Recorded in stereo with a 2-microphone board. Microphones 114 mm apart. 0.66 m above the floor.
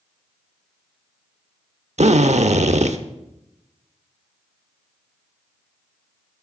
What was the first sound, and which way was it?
A drill, 80° right.